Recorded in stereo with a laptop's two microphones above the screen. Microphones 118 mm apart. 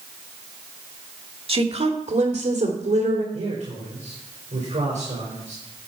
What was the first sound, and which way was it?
A woman speaking, 50° right (ahead or behind).